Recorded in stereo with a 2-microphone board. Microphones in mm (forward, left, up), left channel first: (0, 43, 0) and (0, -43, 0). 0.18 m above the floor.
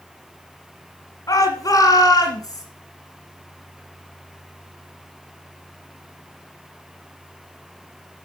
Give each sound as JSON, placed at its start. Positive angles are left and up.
{"t": 1.3, "sound": "a shout", "side_deg": 40, "distance_m": 1.9}